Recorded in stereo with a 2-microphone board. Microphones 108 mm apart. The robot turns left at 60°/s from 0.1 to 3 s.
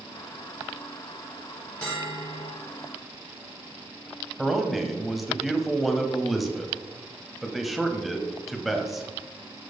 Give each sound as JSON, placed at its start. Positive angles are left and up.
{"t": 1.8, "sound": "a bell", "azimuth_deg": 170, "distance_m": 4.0}
{"t": 4.4, "sound": "a man speaking", "side_deg": 0, "distance_m": 1.2}